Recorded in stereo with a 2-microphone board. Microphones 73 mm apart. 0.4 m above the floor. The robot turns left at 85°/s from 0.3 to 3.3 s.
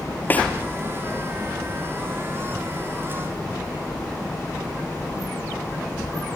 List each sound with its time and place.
0.3 s a snare drum: 25° left (ahead or behind), 4.5 m; by 0.5 s 10° left (ahead or behind), 4.5 m